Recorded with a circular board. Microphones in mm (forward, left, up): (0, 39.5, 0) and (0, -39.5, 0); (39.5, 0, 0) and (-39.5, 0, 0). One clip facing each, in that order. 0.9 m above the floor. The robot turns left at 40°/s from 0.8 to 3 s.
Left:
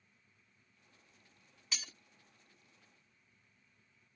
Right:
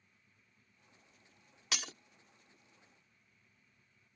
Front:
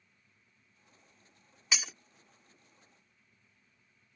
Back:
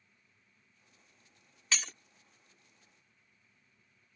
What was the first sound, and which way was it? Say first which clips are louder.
Breaking glass: right 6 dB, even; 75° right.